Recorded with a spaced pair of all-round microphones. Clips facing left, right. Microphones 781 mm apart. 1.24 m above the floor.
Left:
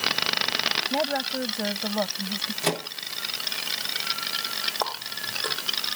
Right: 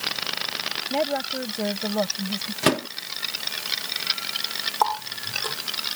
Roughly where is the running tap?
Right.